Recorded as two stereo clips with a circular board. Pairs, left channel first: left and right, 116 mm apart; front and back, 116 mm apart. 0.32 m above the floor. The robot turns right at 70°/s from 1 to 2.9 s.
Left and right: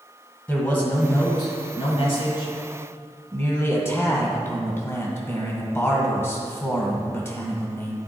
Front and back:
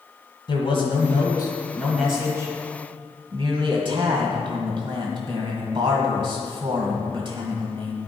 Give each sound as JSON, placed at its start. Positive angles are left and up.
{"t": 0.5, "sound": "a man speaking", "azimuth_deg": 20, "distance_m": 1.8}